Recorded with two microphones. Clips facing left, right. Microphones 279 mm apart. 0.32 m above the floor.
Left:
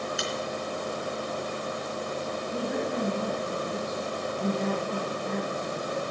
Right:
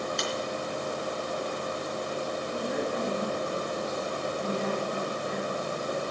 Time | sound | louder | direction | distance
0.2 | a finger snap | right 1 dB | 5° left (ahead or behind) | 3.5 m
2.5 | a woman speaking | left 2 dB | 55° left (ahead or behind) | 4.5 m